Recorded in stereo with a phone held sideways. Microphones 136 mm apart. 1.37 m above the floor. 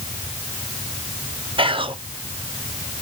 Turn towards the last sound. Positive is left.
turn(degrees=-40)  # may be behind; listen again after turning